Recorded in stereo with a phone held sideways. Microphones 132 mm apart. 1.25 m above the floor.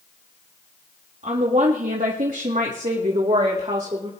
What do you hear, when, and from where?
1.2 s a woman speaking: 65° right (ahead or behind), 1.9 m; by 4.1 s 45° right (ahead or behind), 3 m